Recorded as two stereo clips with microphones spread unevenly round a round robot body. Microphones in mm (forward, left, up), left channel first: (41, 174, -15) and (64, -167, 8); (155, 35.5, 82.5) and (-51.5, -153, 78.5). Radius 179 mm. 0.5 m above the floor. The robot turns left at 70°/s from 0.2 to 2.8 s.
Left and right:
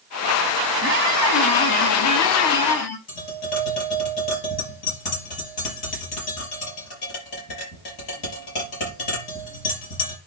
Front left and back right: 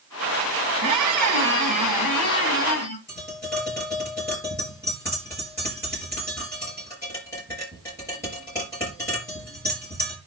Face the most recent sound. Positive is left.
turn(degrees=125)